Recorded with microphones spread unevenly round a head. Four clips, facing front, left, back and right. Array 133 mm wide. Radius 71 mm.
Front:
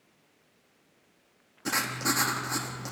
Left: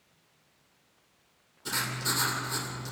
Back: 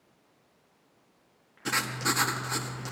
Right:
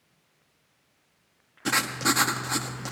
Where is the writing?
60° right, 1.8 m.